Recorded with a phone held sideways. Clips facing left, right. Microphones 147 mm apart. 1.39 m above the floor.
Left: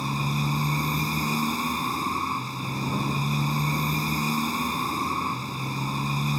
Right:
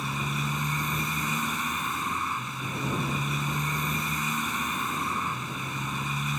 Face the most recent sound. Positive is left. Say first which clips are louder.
# left 4 dB
turn(degrees=35)  # may be behind; listen again after turning